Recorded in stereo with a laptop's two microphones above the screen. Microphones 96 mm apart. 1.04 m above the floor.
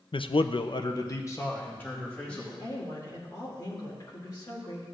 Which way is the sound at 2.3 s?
40° left (ahead or behind).